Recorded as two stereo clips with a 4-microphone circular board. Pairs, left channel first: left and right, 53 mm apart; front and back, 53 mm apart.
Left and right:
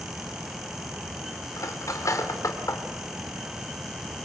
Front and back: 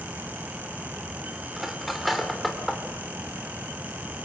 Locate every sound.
1.6 s cutlery clinking: 90° left, 2.5 m